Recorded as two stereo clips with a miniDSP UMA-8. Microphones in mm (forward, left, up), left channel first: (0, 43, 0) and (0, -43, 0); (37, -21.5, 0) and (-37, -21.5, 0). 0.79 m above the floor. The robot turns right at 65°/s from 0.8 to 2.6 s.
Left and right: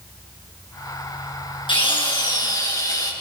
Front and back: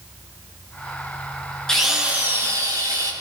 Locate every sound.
1.7 s a drill: 80° left, 6.5 m; by 3.1 s 140° left, 6.5 m